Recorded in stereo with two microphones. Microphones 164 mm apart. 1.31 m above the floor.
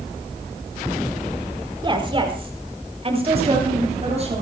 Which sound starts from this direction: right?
A woman speaking, at 1.8 s.